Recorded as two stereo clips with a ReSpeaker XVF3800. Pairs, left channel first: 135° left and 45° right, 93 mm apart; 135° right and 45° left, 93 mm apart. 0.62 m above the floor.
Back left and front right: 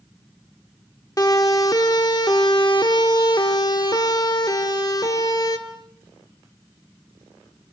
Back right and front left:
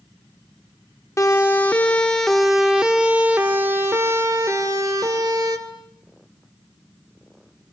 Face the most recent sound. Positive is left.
turn(degrees=90)